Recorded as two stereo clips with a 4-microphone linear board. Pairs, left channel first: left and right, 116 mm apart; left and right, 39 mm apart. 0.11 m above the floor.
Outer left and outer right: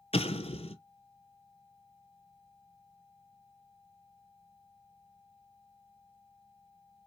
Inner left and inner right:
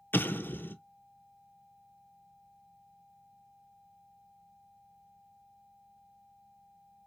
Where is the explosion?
55° left (ahead or behind), 0.6 m.